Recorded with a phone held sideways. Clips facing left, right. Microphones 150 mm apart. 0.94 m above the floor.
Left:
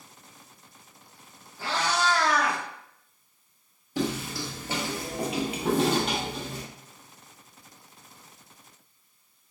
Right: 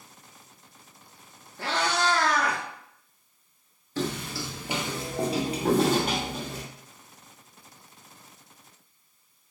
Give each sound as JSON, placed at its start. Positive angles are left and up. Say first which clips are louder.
{"t": 1.6, "sound": "a cat meowing", "louder": "even", "side_deg": -60, "distance_m": 1.6}
{"t": 4.0, "sound": "footsteps", "louder": "left 2 dB", "side_deg": 15, "distance_m": 0.9}